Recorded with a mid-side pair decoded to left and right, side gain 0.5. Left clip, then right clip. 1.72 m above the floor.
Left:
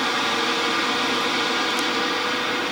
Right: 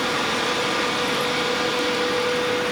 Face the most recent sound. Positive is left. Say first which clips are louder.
# left 1 dB
turn(degrees=15)